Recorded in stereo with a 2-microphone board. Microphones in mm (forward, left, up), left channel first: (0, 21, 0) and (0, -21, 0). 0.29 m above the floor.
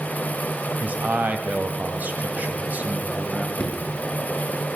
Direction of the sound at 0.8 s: 40° right (ahead or behind).